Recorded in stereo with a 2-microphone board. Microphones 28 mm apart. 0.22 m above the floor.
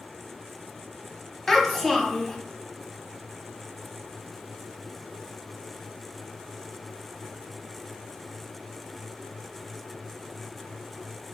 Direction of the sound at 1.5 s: 10° left (ahead or behind).